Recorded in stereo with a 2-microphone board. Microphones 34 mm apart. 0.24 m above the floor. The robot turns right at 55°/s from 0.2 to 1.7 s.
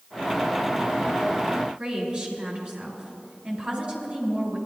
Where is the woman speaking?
25° right (ahead or behind), 4 m.